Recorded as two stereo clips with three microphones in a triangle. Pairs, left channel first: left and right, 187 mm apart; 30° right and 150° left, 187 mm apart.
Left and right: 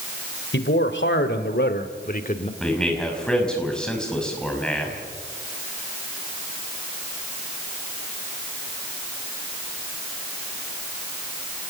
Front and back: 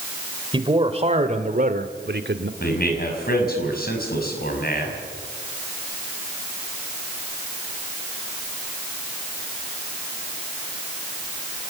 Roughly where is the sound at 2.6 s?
Ahead.